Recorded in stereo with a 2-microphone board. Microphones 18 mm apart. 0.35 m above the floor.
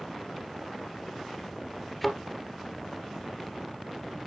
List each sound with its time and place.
2.0 s a thud: centre (ahead or behind), 1.7 m